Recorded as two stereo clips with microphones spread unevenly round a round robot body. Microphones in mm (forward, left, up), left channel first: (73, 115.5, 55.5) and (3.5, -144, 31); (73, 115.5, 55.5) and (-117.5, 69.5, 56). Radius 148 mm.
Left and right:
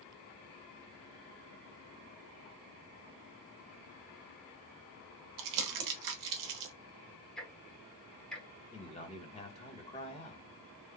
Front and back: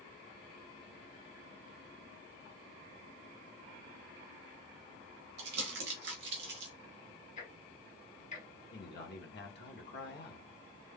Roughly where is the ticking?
Ahead.